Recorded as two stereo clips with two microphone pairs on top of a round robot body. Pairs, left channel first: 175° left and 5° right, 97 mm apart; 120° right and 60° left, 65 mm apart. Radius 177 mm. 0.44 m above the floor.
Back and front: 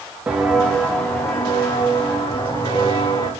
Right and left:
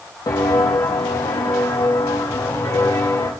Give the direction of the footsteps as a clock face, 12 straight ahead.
3 o'clock.